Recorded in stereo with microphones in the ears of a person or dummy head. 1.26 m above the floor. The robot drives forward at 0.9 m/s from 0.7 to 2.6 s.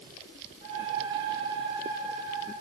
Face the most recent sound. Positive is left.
No sound to turn to.